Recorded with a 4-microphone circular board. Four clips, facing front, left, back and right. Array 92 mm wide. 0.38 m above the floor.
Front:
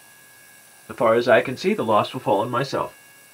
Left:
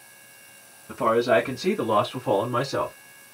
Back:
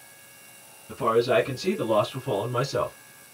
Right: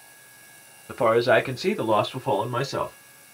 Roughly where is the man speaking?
Ahead right.